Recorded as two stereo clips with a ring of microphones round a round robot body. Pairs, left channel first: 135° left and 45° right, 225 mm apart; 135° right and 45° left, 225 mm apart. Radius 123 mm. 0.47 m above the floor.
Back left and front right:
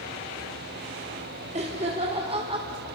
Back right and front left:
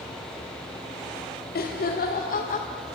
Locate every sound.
1.6 s laughter: 100° right, 2 m